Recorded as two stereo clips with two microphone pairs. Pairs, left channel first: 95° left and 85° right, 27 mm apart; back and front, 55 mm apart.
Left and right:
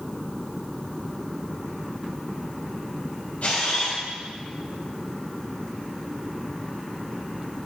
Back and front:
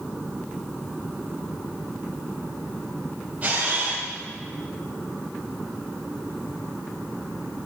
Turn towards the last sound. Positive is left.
turn(degrees=65)